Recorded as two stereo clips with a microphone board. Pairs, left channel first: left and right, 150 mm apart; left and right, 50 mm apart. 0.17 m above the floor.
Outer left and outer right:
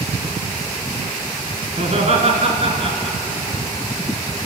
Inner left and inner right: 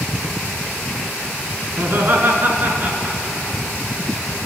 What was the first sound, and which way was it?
Laughter, 50° right (ahead or behind).